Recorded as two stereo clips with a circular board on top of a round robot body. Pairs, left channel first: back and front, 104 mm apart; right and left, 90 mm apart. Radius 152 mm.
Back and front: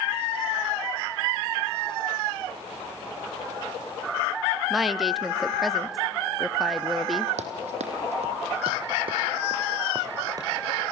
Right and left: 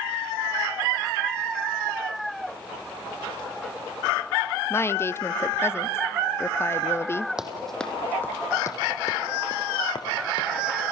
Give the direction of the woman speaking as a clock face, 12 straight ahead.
3 o'clock.